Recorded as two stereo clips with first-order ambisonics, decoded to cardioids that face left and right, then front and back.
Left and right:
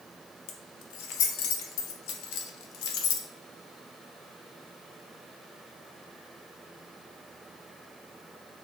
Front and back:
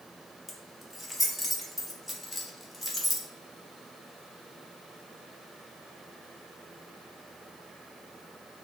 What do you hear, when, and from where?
0.5 s keys jangling: 85° left, 0.5 m